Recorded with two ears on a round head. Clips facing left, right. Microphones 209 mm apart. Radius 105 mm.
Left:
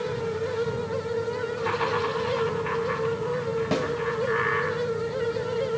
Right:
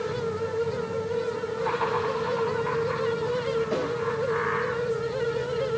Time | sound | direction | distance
1.6 | laughter | 35° left (ahead or behind) | 5.5 m
3.7 | a snare drum | 80° left | 2.5 m